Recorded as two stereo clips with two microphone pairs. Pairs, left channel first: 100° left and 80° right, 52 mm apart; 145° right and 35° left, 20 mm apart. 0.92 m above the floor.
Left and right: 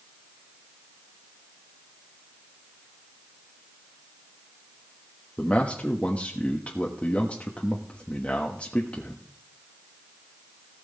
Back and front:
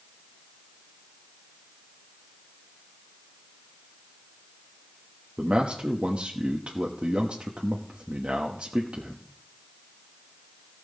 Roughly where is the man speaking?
Ahead left.